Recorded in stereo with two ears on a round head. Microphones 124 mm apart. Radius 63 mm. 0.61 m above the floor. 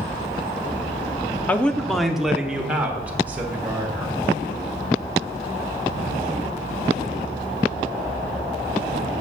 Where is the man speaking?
10° left (ahead or behind), 0.7 m; by 4.2 s 15° right (ahead or behind), 2.5 m.